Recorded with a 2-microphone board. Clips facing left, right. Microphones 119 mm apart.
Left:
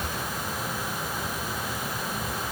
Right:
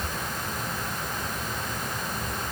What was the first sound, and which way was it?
Only background noise.